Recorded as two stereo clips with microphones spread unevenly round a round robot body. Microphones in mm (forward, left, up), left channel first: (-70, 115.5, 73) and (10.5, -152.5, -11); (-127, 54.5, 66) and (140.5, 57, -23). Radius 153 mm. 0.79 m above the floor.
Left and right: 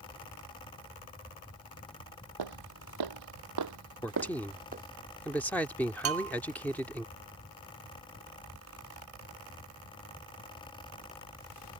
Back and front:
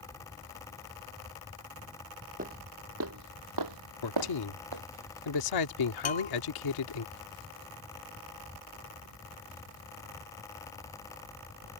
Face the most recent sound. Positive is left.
turn(degrees=-115)